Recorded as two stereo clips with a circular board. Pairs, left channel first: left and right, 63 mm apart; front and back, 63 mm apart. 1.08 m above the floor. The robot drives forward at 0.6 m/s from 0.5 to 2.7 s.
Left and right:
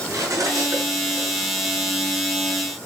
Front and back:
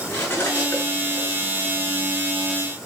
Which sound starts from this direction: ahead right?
Cutlery clinking, at 0.1 s.